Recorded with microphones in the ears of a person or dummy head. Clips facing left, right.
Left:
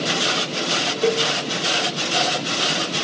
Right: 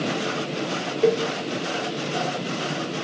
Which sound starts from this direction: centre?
A cowbell, at 1.0 s.